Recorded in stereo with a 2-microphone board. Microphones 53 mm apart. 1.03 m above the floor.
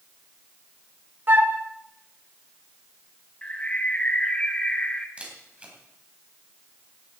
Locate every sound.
1.3 s a flute: 35° right (ahead or behind), 1.1 m
3.4 s a bird: 25° left (ahead or behind), 1.1 m
5.2 s a camera shutter: 25° right (ahead or behind), 3.5 m